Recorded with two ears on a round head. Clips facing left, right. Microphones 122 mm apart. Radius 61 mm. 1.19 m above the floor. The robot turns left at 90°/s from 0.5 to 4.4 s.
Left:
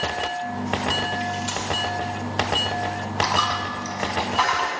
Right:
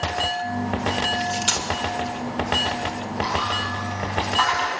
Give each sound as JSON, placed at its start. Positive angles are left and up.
{"t": 1.2, "sound": "cutlery clinking", "side_deg": -55, "distance_m": 2.0}
{"t": 3.2, "sound": "a dropped coin", "side_deg": 70, "distance_m": 3.5}